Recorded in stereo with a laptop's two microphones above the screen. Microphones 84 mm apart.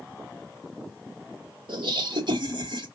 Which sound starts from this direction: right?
Laughter, at 1.7 s.